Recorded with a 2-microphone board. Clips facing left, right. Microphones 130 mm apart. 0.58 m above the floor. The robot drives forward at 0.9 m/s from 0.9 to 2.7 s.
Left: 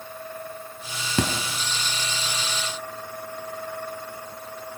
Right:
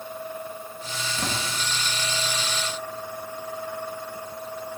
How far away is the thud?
About 3 m.